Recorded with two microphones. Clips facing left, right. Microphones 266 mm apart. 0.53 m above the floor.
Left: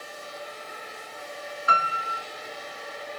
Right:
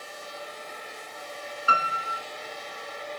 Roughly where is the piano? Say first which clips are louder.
Even; right.